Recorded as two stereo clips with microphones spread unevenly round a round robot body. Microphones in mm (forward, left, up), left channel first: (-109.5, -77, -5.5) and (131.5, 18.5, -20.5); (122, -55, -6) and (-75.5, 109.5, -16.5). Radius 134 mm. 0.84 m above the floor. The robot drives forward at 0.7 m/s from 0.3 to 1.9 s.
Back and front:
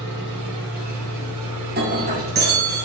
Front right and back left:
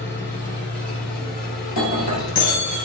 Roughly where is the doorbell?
I don't hear a doorbell.